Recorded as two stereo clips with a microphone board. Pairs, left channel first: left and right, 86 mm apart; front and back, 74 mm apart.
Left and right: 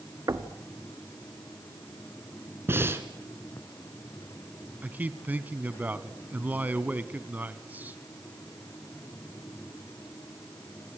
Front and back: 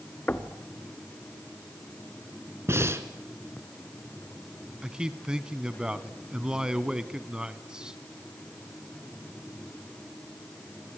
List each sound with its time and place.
0.3 s knocking: 60° right, 1.3 m
2.7 s breathing: 140° right, 1.6 m
4.8 s a man speaking: 120° right, 1.2 m